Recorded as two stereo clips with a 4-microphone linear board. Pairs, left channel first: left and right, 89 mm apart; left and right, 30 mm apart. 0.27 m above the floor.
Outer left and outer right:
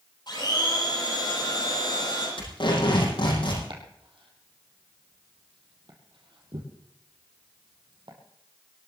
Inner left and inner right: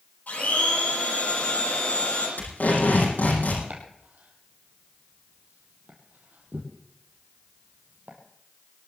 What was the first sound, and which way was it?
A blender, 55° left (ahead or behind).